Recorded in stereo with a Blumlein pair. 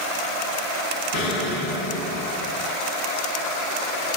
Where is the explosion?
45° left, 5.5 m.